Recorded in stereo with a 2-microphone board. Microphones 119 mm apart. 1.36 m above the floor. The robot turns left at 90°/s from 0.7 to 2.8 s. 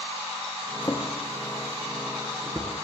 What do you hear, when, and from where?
0.8 s a drawer: 30° left (ahead or behind), 0.8 m; by 2.7 s 25° right (ahead or behind), 0.8 m